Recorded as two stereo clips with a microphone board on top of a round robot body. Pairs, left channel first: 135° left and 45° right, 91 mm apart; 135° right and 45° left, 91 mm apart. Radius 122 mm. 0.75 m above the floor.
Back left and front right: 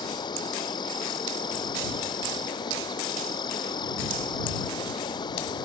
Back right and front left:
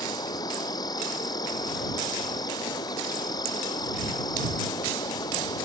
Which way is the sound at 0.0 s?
Straight behind.